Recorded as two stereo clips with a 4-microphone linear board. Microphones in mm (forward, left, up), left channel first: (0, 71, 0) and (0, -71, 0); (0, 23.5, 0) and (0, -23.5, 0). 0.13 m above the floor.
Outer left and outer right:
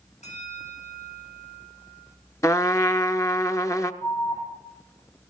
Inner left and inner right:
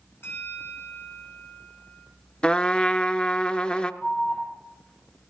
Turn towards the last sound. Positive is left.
turn(degrees=25)  # may be behind; listen again after turning